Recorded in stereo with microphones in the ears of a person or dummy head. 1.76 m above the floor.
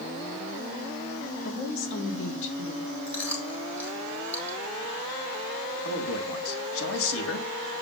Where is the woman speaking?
75° left (ahead or behind), 5 m.